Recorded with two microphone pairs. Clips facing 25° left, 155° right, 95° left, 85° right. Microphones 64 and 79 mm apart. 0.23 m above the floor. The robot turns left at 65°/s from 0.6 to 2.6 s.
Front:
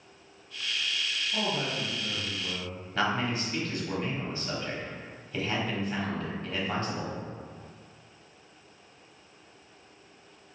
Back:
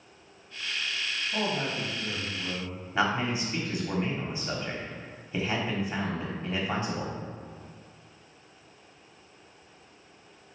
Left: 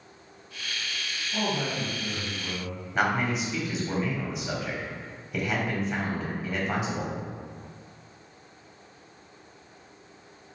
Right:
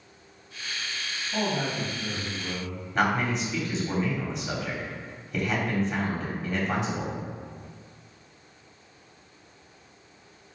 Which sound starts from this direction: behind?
A man speaking, at 3.0 s.